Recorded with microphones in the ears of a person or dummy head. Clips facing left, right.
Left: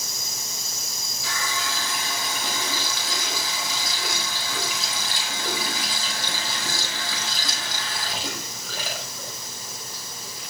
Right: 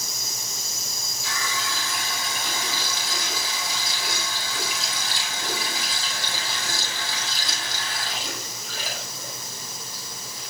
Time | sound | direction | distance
1.2 | a running tap | 75° left (ahead or behind) | 6 m